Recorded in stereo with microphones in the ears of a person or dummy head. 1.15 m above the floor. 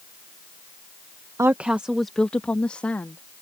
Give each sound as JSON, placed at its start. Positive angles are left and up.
{"t": 1.4, "sound": "a woman speaking", "side_deg": -10}